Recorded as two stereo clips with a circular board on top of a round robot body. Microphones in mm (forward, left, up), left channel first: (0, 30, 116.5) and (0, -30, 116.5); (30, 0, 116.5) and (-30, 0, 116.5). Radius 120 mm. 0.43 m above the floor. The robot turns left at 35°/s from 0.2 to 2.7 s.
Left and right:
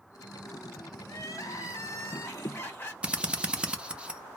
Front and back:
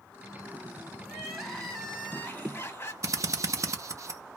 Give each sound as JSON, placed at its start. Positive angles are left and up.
{"t": 1.1, "sound": "crying", "azimuth_deg": 95, "distance_m": 1.9}
{"t": 3.0, "sound": "a drill", "azimuth_deg": -160, "distance_m": 0.8}